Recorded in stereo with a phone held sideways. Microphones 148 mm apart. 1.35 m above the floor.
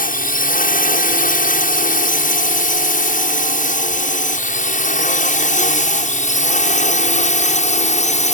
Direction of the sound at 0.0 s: 60° left (ahead or behind).